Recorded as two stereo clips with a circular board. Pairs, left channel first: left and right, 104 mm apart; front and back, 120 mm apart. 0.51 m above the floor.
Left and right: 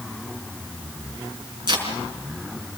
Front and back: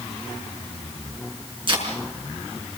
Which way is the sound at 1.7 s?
135° right.